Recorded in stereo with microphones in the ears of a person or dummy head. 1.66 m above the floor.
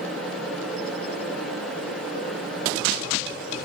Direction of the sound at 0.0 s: Centre (ahead or behind).